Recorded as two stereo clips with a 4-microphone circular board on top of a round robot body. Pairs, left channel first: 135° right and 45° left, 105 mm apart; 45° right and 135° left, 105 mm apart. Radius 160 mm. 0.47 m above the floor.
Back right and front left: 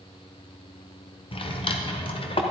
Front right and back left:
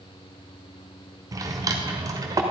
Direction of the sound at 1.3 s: 170° right.